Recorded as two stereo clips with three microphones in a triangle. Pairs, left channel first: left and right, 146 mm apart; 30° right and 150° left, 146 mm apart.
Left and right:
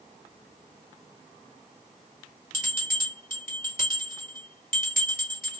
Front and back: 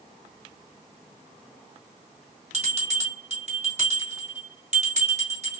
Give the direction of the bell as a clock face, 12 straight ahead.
8 o'clock.